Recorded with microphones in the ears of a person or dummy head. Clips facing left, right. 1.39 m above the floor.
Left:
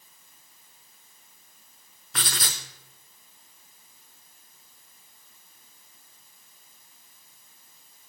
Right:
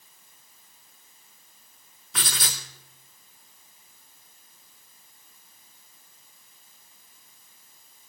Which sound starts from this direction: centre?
Writing, at 2.1 s.